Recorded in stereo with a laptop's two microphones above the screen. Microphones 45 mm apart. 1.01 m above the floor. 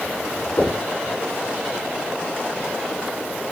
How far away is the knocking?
About 7 m.